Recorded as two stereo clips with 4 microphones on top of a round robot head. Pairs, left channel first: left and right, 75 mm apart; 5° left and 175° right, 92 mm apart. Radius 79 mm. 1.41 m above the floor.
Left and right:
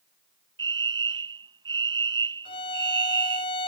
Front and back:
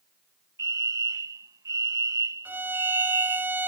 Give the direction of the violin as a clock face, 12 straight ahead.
8 o'clock.